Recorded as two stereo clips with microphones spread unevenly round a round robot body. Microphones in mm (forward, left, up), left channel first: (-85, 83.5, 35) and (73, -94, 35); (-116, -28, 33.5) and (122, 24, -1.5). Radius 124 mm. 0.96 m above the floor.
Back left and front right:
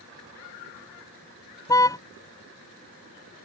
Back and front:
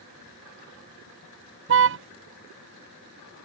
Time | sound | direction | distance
1.7 | a car horn | 55° left | ?